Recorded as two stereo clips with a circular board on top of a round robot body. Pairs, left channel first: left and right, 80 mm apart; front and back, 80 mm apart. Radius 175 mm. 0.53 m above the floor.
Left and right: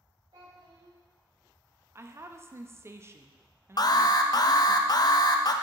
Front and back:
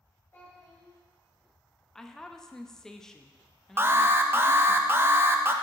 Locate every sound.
0.3 s a child speaking: 65° right, 3 m
1.9 s a woman speaking: 80° right, 0.8 m
3.8 s an alarm: 120° left, 0.7 m